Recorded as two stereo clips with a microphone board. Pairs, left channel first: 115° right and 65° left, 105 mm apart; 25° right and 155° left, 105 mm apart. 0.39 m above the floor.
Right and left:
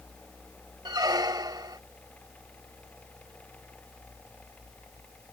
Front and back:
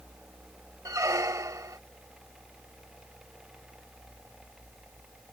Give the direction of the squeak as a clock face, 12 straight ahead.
8 o'clock.